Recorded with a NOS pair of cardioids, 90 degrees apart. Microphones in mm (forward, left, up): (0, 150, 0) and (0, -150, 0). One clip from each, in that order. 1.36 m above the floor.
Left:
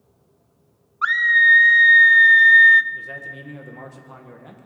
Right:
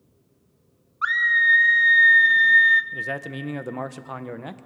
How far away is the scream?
About 0.5 m.